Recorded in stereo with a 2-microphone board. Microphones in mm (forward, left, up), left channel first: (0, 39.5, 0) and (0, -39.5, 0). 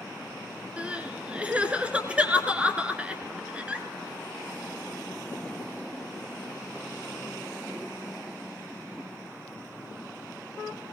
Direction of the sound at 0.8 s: 15° right (ahead or behind).